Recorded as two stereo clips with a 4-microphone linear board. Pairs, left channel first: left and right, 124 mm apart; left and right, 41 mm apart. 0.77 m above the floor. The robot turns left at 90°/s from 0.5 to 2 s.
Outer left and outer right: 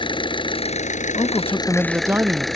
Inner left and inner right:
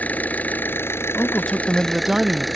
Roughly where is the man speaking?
Ahead left.